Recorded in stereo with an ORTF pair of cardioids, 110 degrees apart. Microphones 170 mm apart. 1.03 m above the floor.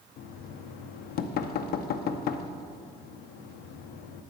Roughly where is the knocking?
Left.